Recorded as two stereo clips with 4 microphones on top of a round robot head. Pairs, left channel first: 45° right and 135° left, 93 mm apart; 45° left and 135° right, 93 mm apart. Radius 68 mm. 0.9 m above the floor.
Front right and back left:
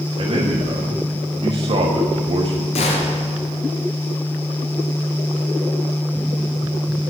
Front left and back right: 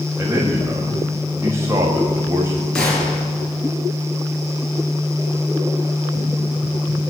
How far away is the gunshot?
About 4 m.